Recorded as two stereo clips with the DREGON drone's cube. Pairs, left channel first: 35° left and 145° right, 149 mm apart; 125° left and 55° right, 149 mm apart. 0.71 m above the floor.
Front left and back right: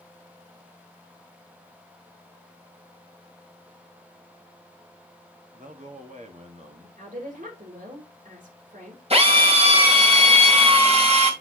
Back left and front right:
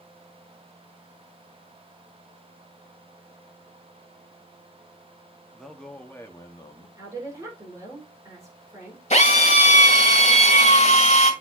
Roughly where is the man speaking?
Behind right.